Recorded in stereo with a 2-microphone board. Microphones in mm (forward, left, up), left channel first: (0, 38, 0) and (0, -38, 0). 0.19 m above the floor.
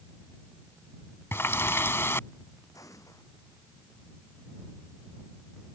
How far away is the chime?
I don't hear a chime.